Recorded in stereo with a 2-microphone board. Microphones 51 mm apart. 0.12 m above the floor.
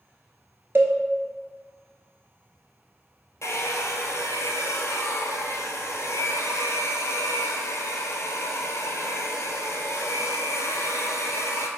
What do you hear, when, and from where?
0.8 s a cowbell: 45° right (ahead or behind), 0.7 m
3.4 s a hair dryer: 70° left (ahead or behind), 0.6 m